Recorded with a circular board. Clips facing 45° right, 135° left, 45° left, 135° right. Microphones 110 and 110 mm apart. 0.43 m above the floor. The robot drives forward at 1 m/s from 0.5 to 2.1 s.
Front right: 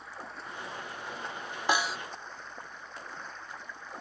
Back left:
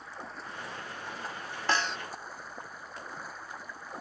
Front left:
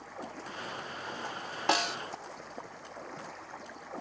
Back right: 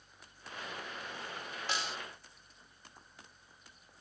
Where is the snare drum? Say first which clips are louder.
Front right 1 dB, front left 10 dB; 30° left; by 2.0 s 40° left.